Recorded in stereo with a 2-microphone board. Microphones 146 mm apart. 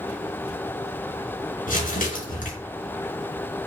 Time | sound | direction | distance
1.7 | crumpling | 70° left (ahead or behind) | 4 m